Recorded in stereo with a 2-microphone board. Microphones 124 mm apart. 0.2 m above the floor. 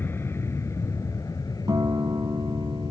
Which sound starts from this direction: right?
A guitar, at 1.7 s.